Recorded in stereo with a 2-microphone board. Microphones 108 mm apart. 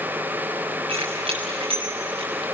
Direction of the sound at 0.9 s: 65° right (ahead or behind).